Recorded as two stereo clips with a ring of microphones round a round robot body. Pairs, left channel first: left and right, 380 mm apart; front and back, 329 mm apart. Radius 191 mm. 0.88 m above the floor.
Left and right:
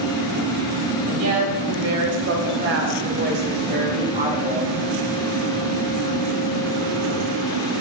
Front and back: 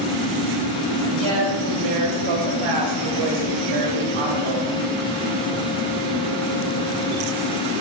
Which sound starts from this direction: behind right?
A woman speaking, at 1.1 s.